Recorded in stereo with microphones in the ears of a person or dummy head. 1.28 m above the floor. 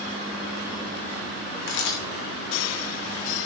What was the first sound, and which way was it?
A camera shutter, 70° left (ahead or behind).